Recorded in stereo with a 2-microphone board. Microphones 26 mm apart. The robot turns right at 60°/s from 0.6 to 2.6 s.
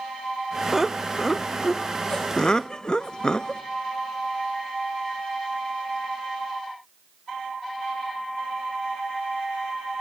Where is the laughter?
10° right (ahead or behind), 0.5 m; by 3.6 s 30° left (ahead or behind), 0.5 m.